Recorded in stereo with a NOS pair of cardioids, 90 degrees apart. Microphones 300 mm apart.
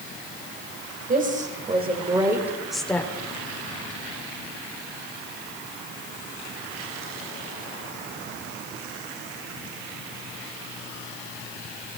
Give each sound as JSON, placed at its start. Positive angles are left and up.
{"t": 1.1, "sound": "a woman speaking", "azimuth_deg": -30, "distance_m": 4.0}